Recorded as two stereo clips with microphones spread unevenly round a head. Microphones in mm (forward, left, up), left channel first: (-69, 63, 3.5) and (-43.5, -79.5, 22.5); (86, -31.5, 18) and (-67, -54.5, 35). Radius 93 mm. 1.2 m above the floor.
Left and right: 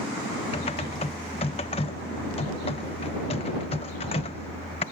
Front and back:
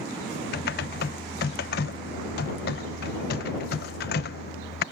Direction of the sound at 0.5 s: 40° left.